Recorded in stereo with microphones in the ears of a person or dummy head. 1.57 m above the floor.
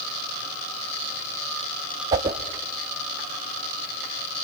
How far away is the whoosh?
About 1.2 m.